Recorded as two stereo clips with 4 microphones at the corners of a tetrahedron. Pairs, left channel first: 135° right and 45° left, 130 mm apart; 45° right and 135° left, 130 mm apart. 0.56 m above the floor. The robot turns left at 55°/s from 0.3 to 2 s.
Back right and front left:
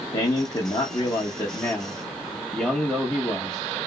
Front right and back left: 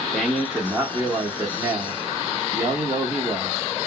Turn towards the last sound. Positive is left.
turn(degrees=140)